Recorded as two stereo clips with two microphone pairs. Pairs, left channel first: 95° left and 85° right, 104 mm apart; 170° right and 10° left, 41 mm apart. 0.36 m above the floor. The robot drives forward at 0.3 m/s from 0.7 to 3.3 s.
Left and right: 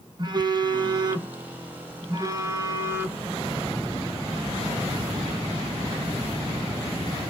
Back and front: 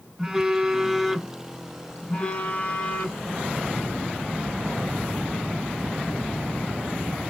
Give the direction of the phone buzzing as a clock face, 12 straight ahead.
2 o'clock.